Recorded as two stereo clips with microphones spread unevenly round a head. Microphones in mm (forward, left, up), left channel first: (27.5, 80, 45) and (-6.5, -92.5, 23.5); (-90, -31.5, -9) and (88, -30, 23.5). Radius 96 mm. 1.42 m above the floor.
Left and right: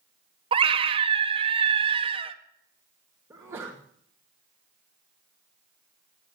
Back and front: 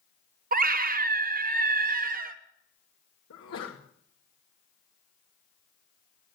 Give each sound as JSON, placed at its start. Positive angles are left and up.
{"t": 0.5, "sound": "a scream", "azimuth_deg": -45, "distance_m": 1.3}
{"t": 3.3, "sound": "a sneeze", "azimuth_deg": 180, "distance_m": 2.0}